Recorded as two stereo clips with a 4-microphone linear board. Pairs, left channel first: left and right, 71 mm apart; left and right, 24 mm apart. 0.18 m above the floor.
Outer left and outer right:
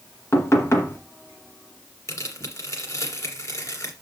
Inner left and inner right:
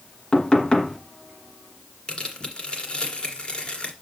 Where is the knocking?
40° left (ahead or behind), 1.4 m.